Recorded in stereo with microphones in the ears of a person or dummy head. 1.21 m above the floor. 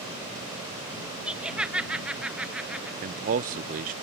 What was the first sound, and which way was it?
Laughter, 5° right (ahead or behind).